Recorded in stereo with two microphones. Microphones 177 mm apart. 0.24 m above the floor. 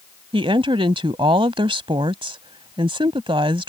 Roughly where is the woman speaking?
Right.